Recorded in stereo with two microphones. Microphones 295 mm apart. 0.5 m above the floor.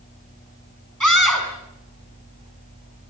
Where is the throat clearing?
No throat clearing in this recording.